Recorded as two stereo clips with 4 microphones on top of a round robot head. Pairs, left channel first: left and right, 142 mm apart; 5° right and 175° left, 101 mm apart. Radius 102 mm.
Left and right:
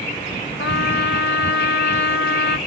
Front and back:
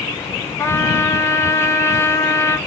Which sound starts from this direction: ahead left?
A trumpet, at 0.6 s.